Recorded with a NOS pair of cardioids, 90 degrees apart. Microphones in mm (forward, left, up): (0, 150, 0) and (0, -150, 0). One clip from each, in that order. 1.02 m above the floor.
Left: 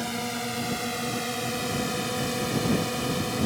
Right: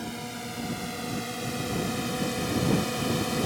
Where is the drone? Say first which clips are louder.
Left 6 dB; 55° left; by 3.5 s 5° left.